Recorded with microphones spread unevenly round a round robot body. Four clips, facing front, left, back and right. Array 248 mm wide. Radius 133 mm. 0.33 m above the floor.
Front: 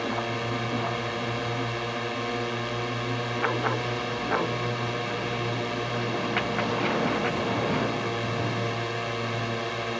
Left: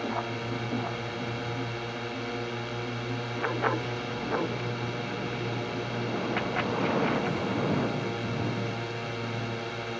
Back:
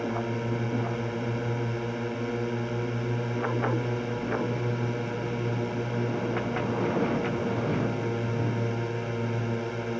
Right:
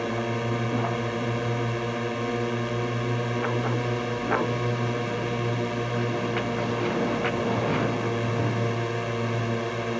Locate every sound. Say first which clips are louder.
0.0 s a drone: right 4 dB, front 1 dB; 115° right